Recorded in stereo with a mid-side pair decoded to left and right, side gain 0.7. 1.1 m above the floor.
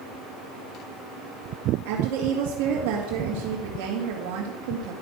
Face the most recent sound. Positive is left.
turn(degrees=-70)